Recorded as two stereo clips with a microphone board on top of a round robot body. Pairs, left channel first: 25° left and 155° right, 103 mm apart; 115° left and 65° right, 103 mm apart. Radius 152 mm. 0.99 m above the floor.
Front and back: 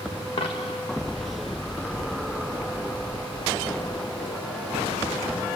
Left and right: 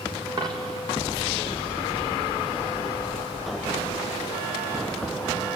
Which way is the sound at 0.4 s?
15° right.